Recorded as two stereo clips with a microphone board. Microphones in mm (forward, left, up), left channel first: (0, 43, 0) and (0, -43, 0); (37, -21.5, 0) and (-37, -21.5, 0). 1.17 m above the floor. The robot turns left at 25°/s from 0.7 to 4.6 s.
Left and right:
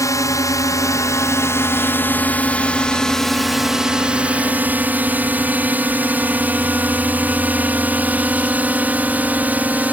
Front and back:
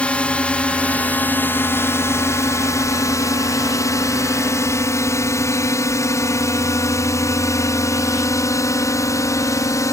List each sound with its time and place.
0.0 s a drone: 65° left; by 9.9 s 25° right